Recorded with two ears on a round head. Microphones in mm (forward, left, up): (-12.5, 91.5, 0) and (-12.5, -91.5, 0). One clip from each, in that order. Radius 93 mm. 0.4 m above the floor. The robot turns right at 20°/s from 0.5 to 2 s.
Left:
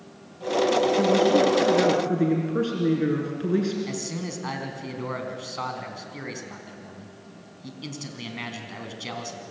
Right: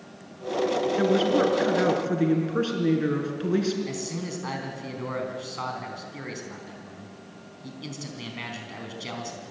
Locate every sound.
1.0 s a woman speaking: 40° right (ahead or behind), 4.5 m; by 3.8 s 20° right (ahead or behind), 4.5 m
3.9 s a man speaking: 5° left (ahead or behind), 3.5 m